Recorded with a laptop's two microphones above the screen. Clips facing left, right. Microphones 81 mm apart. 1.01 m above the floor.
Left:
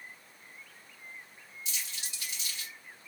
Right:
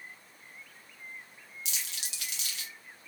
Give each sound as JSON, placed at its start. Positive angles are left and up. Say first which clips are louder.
{"t": 1.6, "sound": "crumpling", "louder": "even", "side_deg": -70, "distance_m": 1.0}